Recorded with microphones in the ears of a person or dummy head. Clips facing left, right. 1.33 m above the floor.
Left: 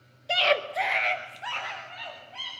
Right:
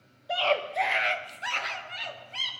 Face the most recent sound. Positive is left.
turn(degrees=-40)  # may be behind; listen again after turning